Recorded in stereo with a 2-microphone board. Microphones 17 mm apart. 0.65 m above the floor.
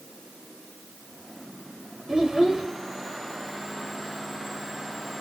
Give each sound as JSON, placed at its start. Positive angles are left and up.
{"t": 2.1, "sound": "a child speaking", "side_deg": -45, "distance_m": 1.5}